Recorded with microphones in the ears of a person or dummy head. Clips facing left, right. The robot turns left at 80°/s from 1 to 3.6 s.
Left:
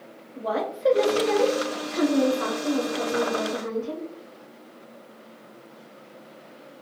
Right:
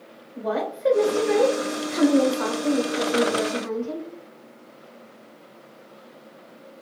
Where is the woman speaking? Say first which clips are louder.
Right 1 dB; 5° right, 1.2 m; by 4.1 s 150° left, 1.2 m.